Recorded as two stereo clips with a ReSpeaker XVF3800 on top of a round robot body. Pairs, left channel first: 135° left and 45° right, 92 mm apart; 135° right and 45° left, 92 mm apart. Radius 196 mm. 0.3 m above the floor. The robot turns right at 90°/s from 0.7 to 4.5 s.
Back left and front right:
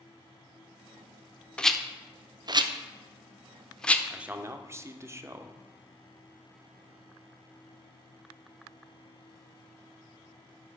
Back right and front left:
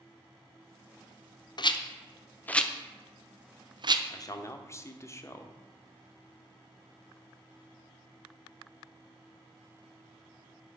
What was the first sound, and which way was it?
A rattle, 150° right.